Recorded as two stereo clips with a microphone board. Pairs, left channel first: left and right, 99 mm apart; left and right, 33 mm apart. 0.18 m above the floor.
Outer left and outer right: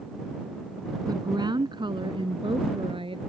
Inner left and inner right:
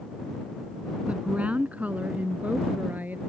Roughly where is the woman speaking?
Right.